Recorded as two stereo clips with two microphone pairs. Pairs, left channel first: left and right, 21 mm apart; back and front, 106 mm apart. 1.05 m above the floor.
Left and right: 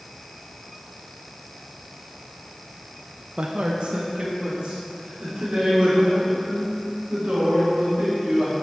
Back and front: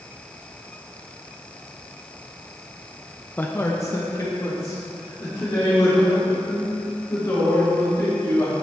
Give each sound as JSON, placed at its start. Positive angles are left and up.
{"t": 3.4, "sound": "a man speaking", "azimuth_deg": -110, "distance_m": 0.6}